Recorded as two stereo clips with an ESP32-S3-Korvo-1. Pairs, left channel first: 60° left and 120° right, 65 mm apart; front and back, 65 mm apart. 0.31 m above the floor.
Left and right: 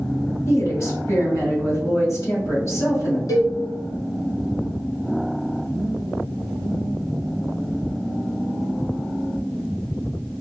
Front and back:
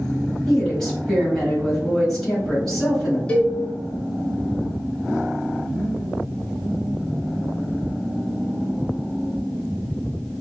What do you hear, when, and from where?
0.5 s a woman speaking: 80° left, 1.9 m
3.3 s a cowbell: 70° left, 0.7 m